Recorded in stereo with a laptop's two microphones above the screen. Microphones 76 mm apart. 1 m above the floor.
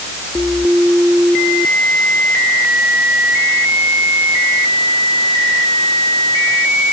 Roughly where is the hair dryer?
I don't hear a hair dryer.